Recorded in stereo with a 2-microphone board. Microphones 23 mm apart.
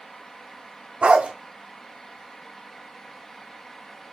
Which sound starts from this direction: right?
A dog barking, at 1.0 s.